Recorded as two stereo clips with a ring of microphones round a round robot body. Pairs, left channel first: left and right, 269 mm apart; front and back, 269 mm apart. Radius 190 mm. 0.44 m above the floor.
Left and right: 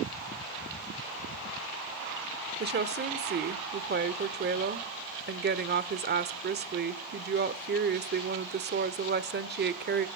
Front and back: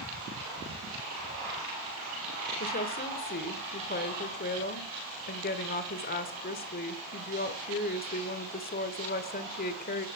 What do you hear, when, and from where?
2.6 s a woman speaking: 50° right, 1.2 m